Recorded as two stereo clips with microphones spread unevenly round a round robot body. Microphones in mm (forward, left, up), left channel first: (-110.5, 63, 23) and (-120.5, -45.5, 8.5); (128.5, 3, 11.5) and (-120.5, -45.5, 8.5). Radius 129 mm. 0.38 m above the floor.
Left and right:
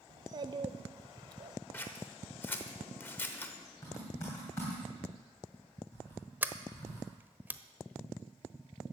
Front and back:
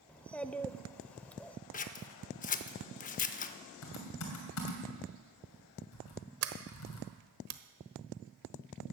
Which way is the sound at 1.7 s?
15° left.